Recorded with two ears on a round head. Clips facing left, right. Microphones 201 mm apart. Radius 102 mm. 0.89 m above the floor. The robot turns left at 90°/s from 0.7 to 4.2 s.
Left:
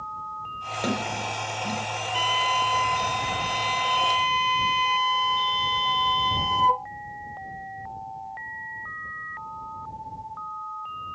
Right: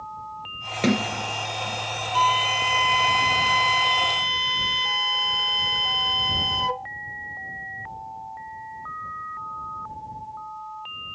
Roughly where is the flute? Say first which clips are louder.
Right 3 dB; ahead.